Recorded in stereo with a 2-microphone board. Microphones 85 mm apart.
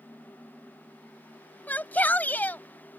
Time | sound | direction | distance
1.7 | a shout | 20° left (ahead or behind) | ?